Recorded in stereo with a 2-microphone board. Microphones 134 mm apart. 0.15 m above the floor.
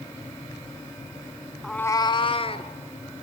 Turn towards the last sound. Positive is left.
turn(degrees=45)  # may be behind; listen again after turning